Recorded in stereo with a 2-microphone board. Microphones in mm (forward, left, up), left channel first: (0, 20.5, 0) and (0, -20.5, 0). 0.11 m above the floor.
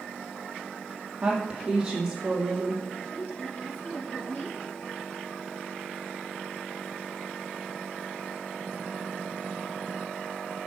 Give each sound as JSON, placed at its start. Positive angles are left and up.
{"t": 1.2, "sound": "a woman speaking", "side_deg": -20, "distance_m": 3.5}
{"t": 3.1, "sound": "a woman speaking", "side_deg": 40, "distance_m": 2.5}